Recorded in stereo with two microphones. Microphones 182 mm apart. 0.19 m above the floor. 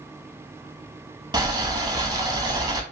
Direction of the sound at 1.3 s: 20° right (ahead or behind).